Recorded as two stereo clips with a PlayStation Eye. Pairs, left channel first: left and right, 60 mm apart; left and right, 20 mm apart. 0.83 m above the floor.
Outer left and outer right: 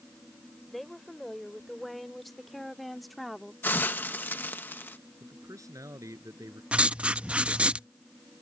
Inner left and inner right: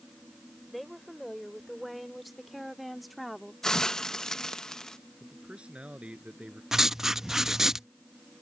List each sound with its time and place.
0.7 s a woman speaking: 5° left (ahead or behind); by 3.5 s centre (ahead or behind)
3.6 s a hiss: 30° left (ahead or behind)
5.2 s a man speaking: 65° right (ahead or behind)
6.7 s writing: 20° right (ahead or behind)